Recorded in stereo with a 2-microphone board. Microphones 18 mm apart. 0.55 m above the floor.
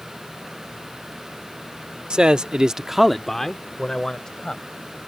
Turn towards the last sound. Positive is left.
turn(degrees=40)  # may be behind; listen again after turning